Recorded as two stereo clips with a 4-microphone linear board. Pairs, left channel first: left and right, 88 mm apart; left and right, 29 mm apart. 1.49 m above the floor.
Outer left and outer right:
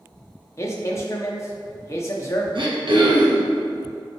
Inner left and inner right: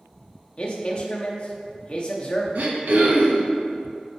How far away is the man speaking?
About 0.6 m.